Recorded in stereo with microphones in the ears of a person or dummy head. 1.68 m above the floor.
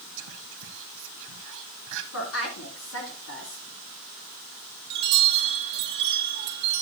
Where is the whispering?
65° right (ahead or behind), 1.2 m.